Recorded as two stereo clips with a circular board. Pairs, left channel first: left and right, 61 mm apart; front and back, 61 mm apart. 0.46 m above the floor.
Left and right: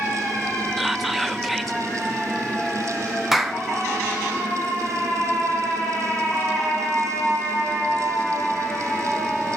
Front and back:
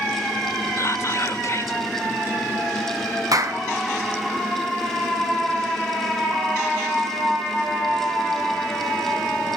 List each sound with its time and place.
0.8 s whispering: 5° right, 1.4 m
3.3 s a clap: 175° right, 3 m